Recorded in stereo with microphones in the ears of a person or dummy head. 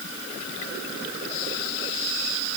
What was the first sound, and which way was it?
Only background noise.